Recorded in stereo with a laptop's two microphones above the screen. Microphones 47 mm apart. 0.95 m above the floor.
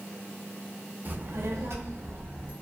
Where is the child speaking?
40° right (ahead or behind), 0.5 m; by 2.5 s 50° right (ahead or behind), 1.0 m.